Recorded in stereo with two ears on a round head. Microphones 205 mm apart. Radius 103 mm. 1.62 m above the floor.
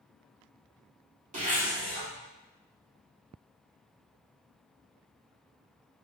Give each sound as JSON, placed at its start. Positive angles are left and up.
{"t": 1.3, "sound": "a zipper", "side_deg": -35, "distance_m": 2.5}